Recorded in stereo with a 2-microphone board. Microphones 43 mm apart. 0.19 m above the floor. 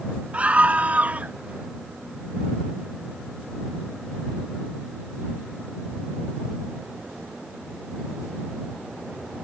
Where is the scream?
35° right (ahead or behind).